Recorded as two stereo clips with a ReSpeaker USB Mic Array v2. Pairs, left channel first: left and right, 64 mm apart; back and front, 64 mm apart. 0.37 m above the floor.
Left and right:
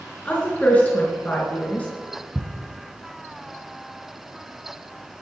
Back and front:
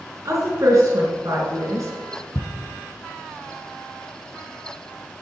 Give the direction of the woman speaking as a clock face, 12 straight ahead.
11 o'clock.